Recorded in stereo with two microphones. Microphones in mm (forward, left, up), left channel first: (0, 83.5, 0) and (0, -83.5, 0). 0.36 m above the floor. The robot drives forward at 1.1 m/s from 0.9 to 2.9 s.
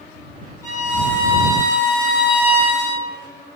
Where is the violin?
15° left (ahead or behind), 3 m; by 3.1 s 40° left (ahead or behind), 1.5 m.